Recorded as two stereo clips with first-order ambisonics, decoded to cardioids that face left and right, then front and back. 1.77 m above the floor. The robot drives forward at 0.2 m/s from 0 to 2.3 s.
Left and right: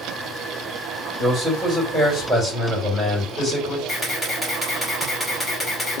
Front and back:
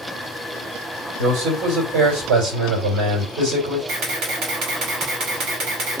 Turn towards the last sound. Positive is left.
turn(degrees=170)